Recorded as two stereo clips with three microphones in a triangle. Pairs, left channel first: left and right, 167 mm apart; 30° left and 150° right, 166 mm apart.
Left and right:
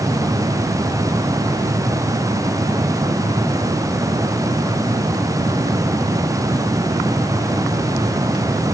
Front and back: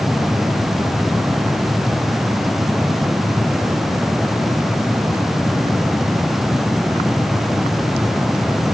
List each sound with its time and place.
Only background noise.